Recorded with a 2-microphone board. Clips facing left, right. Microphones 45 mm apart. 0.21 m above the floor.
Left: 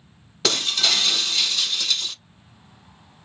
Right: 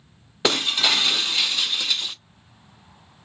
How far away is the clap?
I don't hear a clap.